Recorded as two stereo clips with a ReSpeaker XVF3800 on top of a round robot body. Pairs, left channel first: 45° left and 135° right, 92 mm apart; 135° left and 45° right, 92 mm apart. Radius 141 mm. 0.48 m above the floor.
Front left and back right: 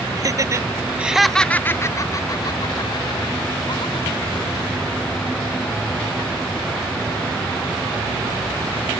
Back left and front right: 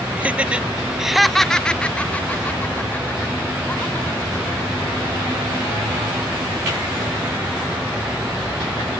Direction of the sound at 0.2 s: 110° right.